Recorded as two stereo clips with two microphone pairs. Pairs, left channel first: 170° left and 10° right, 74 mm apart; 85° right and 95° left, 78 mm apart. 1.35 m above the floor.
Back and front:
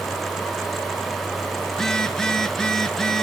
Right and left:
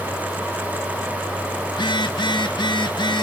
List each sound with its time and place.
1.7 s a phone buzzing: 105° right, 1.3 m